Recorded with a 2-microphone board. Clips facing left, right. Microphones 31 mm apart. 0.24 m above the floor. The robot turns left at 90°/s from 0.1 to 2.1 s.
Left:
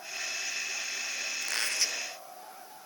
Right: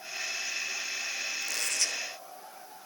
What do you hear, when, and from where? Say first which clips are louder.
1.4 s a squeak: left 2 dB; 55° left; by 2.0 s straight ahead